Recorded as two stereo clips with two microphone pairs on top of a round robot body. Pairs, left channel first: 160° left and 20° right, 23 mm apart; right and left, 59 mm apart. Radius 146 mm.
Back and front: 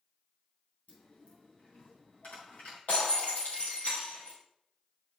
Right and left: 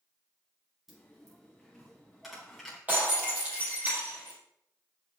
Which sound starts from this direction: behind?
A dropped coin, at 0.9 s.